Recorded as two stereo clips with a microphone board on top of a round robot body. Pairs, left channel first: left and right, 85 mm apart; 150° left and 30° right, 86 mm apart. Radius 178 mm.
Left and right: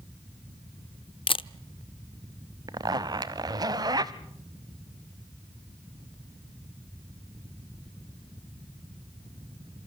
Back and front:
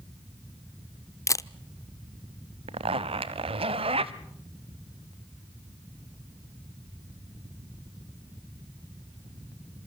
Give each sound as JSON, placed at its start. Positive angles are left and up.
{"t": 1.3, "sound": "a camera shutter", "azimuth_deg": 100, "distance_m": 0.8}
{"t": 2.7, "sound": "a zipper", "azimuth_deg": -40, "distance_m": 0.5}